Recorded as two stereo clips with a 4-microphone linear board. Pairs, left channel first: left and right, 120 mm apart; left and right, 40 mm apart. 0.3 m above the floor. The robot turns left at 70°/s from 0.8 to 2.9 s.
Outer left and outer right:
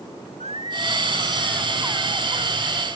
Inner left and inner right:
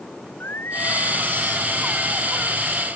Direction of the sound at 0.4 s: 65° left.